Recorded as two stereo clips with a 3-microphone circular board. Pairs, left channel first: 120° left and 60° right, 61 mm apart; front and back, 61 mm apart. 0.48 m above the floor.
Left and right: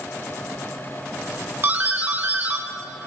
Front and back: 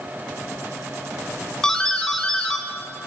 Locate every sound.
1.6 s a doorbell: 70° right, 1.3 m